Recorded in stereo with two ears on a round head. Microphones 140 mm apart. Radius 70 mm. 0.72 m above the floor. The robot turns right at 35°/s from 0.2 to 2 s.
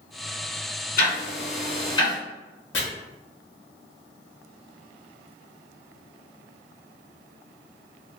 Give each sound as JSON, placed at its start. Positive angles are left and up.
{"t": 1.0, "sound": "ticking", "side_deg": 65, "distance_m": 1.7}
{"t": 2.7, "sound": "chopping", "side_deg": 85, "distance_m": 1.4}